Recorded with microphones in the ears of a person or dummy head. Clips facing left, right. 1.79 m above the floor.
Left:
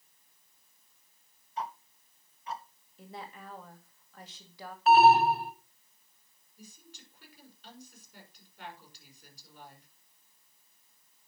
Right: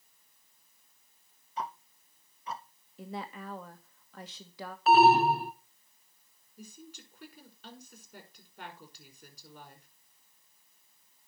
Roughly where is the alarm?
Right.